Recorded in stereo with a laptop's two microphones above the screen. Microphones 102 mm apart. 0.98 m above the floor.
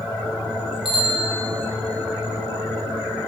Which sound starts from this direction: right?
A bicycle bell, at 0.8 s.